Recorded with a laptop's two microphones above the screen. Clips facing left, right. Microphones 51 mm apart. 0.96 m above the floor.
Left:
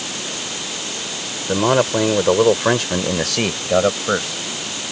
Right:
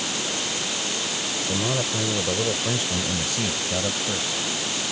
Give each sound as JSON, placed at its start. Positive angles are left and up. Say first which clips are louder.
{"t": 1.5, "sound": "a man speaking", "louder": "left 12 dB", "side_deg": 60}